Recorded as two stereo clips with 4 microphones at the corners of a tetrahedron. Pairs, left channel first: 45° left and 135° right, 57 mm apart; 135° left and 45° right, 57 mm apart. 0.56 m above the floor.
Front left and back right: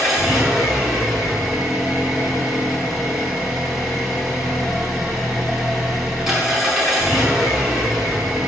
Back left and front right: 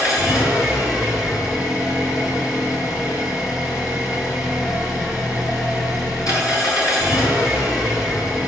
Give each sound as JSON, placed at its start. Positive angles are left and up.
{"t": 0.0, "sound": "an engine running", "azimuth_deg": 140, "distance_m": 5.5}